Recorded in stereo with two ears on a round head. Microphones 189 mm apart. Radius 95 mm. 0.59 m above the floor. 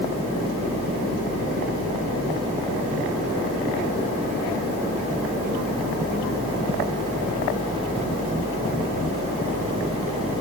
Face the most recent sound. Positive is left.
No sound to turn to.